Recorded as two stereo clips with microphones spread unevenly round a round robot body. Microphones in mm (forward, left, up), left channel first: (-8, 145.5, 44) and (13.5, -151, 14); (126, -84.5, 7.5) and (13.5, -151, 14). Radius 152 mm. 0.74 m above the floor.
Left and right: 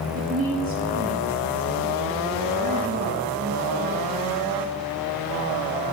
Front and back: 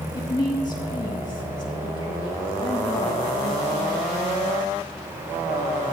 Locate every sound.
0.1 s a woman speaking: 25° right, 5.5 m